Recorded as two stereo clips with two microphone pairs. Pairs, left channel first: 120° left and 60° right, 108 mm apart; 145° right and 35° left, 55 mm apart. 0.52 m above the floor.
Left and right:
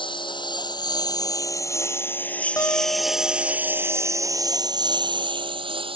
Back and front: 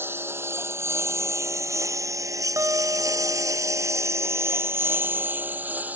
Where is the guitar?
60° left.